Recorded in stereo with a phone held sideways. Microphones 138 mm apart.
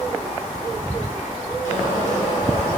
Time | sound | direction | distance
1.6 | boiling | 65° left (ahead or behind) | 2 m